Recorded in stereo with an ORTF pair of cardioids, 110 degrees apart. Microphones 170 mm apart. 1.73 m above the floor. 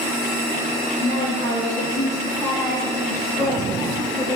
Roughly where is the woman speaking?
Ahead.